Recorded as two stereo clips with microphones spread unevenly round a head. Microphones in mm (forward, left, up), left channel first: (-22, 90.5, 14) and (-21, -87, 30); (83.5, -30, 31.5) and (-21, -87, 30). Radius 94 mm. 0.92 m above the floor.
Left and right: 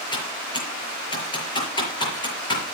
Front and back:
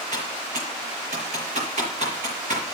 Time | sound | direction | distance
0.1 | typing on a keyboard | 155° left | 6 m